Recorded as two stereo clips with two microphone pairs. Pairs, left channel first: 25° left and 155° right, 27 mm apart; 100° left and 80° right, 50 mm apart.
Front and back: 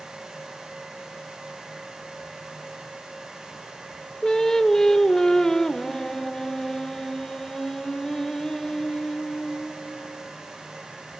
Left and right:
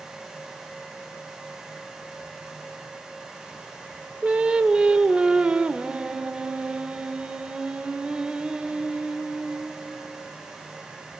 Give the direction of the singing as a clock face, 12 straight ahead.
1 o'clock.